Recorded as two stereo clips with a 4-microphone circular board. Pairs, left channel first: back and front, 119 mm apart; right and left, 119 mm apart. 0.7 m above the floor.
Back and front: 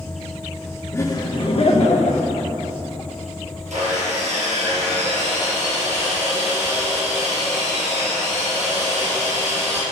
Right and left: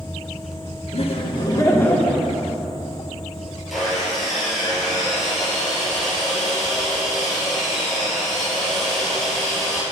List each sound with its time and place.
0.9 s laughter: 115° right, 1.1 m; by 2.5 s straight behind, 1.6 m
3.7 s sawing: straight ahead, 3.5 m